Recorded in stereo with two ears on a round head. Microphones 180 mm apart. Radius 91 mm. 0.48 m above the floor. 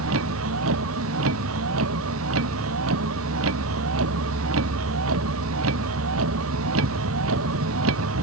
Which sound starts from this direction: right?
A vehicle, at 0.0 s.